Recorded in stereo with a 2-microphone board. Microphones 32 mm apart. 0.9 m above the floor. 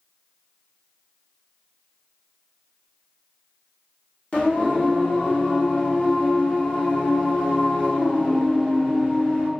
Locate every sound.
4.3 s singing: 40° left (ahead or behind), 0.8 m